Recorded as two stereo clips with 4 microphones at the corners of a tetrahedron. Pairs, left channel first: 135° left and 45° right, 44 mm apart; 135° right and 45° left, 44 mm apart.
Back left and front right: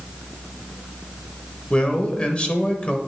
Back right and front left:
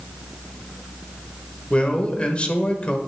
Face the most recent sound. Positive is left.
turn(degrees=-175)